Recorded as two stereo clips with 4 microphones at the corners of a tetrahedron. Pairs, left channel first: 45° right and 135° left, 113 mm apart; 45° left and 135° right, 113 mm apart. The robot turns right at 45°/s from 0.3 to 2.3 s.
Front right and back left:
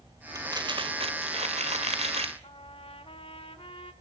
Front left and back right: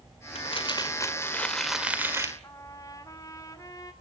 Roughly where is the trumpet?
Ahead.